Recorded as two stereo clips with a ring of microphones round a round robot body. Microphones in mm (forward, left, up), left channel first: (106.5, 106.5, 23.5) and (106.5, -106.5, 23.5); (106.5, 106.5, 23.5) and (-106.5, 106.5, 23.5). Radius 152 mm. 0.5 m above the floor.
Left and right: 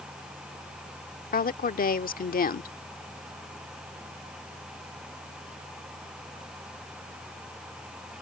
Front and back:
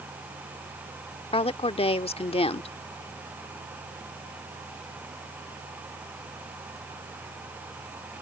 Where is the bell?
I don't hear a bell.